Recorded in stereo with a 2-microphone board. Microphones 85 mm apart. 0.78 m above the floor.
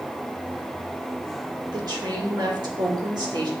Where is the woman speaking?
50° right (ahead or behind), 2.5 m.